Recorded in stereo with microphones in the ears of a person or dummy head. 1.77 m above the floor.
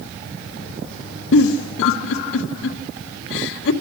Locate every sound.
1.3 s a giggle: 70° left (ahead or behind), 1.8 m